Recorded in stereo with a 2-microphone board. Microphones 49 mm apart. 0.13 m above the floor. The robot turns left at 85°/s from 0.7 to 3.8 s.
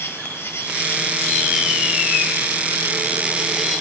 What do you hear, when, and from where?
0.0 s an insect: 70° left, 1.8 m; by 3.8 s 165° left, 1.8 m